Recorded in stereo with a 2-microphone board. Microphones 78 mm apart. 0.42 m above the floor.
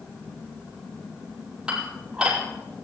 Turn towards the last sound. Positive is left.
turn(degrees=-10)  # may be behind; listen again after turning